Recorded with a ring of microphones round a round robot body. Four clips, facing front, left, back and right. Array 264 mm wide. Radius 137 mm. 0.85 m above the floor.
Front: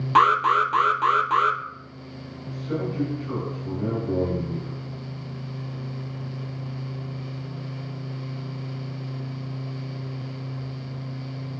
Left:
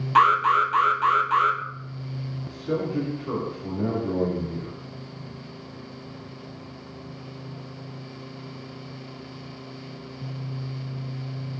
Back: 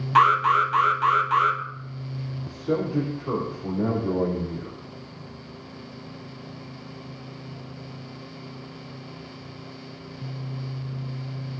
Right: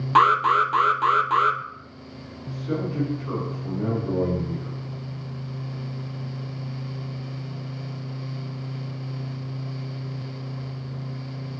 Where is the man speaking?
160° left, 5 m.